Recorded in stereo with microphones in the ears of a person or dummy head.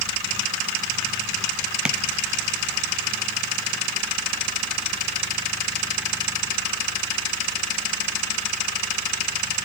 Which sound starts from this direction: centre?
Tapping, at 1.9 s.